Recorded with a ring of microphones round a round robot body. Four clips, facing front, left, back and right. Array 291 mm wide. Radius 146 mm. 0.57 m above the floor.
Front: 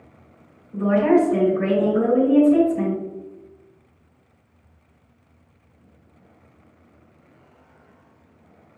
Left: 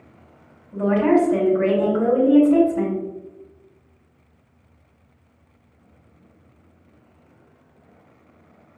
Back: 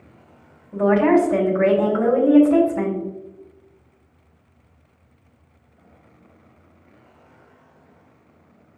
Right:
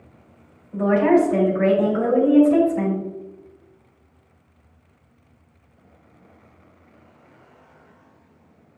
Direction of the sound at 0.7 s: 175° left.